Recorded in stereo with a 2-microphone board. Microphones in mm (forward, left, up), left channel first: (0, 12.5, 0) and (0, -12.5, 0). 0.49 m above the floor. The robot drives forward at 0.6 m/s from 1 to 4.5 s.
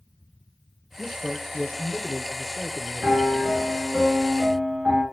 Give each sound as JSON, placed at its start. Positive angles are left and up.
{"t": 1.0, "sound": "a man speaking", "side_deg": -20, "distance_m": 2.0}
{"t": 3.0, "sound": "a piano", "side_deg": -75, "distance_m": 3.5}